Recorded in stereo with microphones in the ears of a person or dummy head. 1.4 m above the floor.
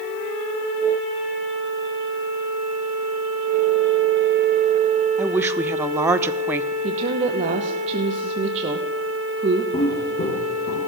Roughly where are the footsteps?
Left.